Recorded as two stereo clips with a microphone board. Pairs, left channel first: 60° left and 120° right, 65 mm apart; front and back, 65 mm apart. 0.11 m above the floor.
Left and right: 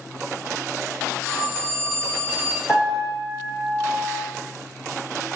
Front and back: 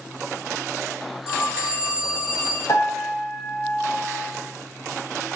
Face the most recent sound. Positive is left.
turn(degrees=-35)